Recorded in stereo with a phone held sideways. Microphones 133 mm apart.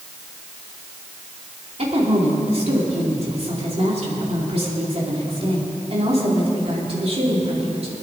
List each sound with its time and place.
1.8 s a woman speaking: 50° right (ahead or behind), 3.5 m